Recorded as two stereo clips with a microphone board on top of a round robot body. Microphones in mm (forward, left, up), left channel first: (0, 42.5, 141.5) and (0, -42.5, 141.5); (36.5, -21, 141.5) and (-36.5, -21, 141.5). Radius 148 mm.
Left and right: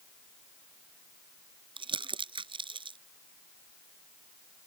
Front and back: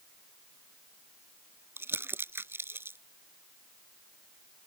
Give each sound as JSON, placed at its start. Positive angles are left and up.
{"t": 1.8, "sound": "crumpling", "azimuth_deg": -120}